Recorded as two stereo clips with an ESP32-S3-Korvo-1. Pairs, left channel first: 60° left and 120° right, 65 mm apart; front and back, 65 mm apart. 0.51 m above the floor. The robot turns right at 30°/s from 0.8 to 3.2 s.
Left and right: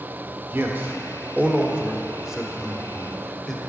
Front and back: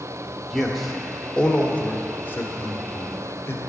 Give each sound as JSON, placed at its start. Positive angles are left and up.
{"t": 0.5, "sound": "a man speaking", "azimuth_deg": -85, "distance_m": 1.1}